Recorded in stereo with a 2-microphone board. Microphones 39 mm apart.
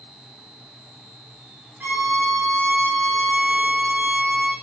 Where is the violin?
70° right (ahead or behind), 4.5 m.